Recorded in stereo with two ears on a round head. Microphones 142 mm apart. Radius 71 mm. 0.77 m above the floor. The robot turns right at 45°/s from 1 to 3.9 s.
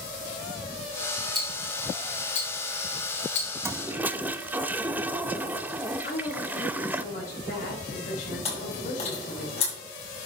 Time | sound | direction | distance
1.4 | ticking | centre (ahead or behind) | 3.5 m
3.6 | a toilet flushing | 15° right (ahead or behind) | 0.5 m
6.0 | a woman speaking | 55° left (ahead or behind) | 5 m
8.4 | chewing | 40° left (ahead or behind) | 5.5 m